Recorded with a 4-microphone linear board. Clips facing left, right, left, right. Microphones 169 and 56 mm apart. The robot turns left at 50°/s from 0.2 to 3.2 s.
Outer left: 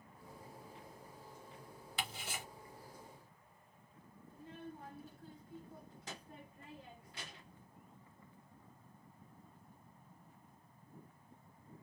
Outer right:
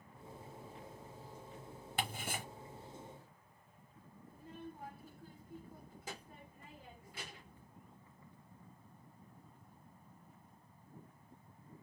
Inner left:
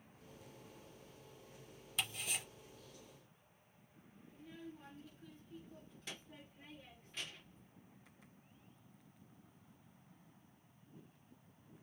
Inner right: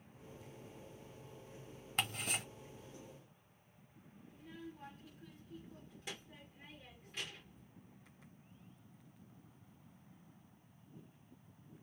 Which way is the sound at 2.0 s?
60° right (ahead or behind).